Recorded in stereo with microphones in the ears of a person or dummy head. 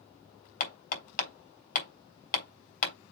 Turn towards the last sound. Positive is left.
turn(degrees=55)  # may be behind; listen again after turning